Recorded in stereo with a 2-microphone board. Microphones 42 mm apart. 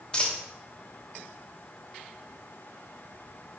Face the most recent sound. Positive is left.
turn(degrees=20)  # may be behind; listen again after turning